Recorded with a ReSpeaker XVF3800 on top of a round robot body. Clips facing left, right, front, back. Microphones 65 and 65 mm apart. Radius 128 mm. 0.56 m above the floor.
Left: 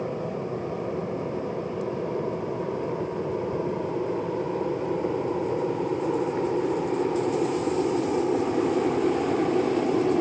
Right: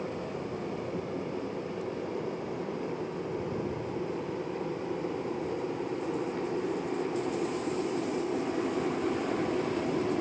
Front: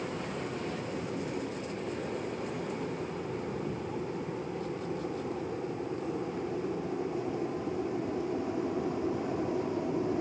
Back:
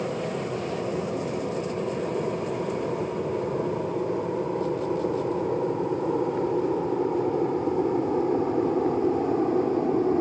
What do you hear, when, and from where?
0.0 s an aircraft: 155° left; by 10.2 s 145° left